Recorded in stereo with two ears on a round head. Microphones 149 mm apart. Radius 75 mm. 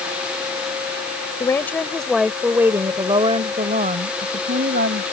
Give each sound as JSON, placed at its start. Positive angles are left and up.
{"t": 1.4, "sound": "a woman speaking", "side_deg": 20}